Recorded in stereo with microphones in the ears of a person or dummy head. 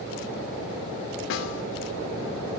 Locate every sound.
1.3 s a snare drum: 60° left (ahead or behind), 2.5 m